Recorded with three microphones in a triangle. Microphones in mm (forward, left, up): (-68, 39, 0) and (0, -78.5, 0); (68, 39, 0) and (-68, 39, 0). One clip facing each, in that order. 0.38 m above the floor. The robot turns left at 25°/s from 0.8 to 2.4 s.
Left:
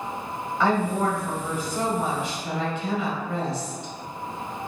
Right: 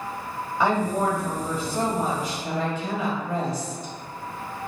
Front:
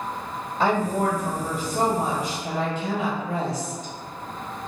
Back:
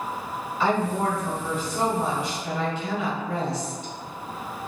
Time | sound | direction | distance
0.6 | a woman speaking | 15° left | 1.7 m